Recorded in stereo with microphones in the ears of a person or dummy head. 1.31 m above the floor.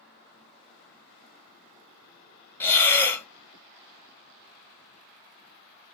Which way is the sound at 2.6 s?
15° left (ahead or behind).